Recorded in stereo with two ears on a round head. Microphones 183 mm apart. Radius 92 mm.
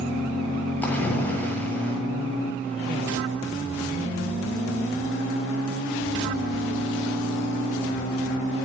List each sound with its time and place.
0.8 s a splash: 10° left (ahead or behind), 8.5 m